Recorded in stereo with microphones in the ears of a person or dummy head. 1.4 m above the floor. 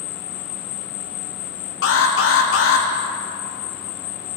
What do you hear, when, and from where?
0.0 s an insect: 45° left (ahead or behind), 1.3 m
1.8 s an alarm: 65° left (ahead or behind), 1.4 m